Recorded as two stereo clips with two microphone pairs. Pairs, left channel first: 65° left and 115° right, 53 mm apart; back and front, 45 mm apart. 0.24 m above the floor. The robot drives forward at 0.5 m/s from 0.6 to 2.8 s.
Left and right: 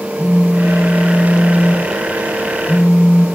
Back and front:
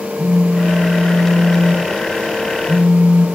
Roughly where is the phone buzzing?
Ahead.